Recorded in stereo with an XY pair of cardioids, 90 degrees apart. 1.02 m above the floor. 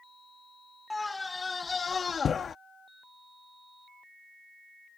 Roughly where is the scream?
Ahead.